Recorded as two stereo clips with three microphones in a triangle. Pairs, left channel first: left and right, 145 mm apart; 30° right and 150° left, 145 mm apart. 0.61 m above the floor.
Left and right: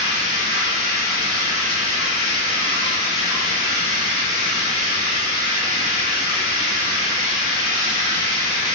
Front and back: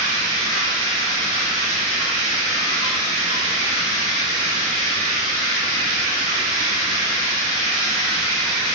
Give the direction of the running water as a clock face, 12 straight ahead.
3 o'clock.